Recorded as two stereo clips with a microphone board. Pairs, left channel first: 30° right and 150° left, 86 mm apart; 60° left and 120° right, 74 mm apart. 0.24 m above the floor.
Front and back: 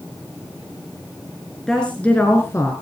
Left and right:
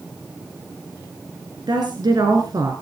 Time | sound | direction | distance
1.7 | a woman speaking | 115° right | 3 m